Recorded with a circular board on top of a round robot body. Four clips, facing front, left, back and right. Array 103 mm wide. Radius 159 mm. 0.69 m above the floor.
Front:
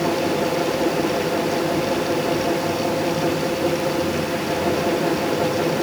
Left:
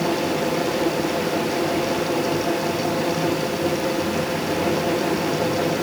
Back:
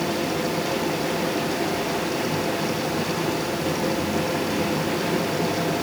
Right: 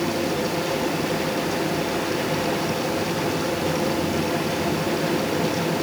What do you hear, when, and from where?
Only background noise.